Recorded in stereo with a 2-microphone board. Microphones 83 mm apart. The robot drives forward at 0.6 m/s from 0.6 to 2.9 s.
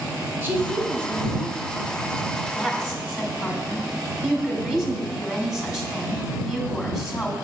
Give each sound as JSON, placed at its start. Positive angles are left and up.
{"t": 0.4, "sound": "a woman speaking", "side_deg": -30, "distance_m": 1.0}
{"t": 2.5, "sound": "a woman speaking", "side_deg": 5, "distance_m": 1.6}